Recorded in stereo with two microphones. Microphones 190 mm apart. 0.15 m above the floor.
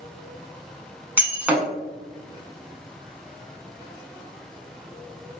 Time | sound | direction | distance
1.2 | breaking glass | 10° right (ahead or behind) | 0.7 m